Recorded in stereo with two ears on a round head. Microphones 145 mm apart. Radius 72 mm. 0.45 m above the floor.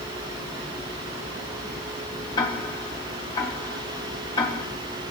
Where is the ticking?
30° left (ahead or behind), 1.3 m.